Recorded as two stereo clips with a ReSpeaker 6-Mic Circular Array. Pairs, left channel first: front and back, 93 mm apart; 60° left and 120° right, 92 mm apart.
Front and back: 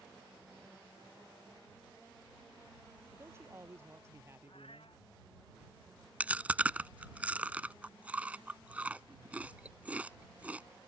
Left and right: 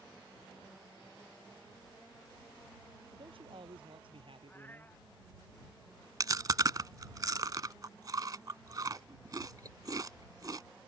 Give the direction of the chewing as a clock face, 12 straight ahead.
4 o'clock.